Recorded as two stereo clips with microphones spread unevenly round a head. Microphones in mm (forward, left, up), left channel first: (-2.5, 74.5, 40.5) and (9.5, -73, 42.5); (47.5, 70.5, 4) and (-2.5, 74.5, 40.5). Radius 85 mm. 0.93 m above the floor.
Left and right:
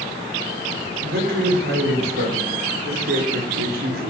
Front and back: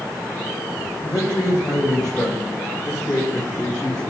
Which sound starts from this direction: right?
A man speaking, at 1.0 s.